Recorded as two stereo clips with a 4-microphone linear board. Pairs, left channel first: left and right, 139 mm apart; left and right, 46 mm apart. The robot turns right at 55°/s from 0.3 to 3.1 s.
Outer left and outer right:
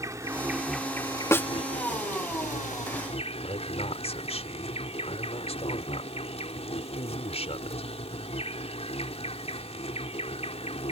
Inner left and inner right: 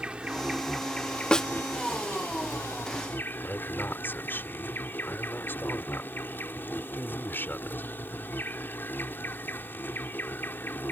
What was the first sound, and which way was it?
An insect, 20° right.